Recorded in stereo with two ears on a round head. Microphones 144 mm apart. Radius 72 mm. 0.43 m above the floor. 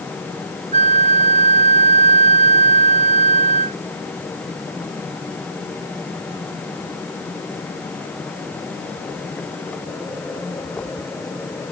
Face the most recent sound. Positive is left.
turn(degrees=-45)  # may be behind; listen again after turning